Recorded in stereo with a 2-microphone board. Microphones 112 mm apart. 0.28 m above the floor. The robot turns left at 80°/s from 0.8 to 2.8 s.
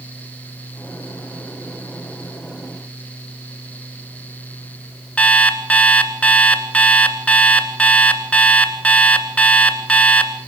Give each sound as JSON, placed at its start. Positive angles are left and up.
{"t": 5.2, "sound": "an alarm clock", "side_deg": 10, "distance_m": 1.5}